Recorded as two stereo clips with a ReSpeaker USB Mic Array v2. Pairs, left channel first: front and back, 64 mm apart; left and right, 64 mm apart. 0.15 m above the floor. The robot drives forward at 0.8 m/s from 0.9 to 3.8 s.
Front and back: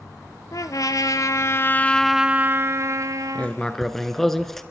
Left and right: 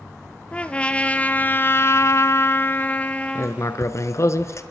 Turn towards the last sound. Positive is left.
turn(degrees=85)